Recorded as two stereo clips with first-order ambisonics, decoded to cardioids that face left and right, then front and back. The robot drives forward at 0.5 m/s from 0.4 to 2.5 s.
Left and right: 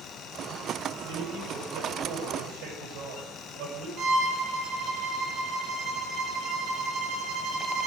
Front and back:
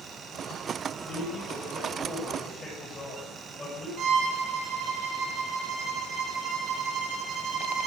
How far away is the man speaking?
About 8.5 m.